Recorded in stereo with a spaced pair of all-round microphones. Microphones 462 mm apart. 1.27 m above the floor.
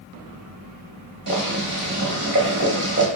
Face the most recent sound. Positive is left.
turn(degrees=-25)  # may be behind; listen again after turning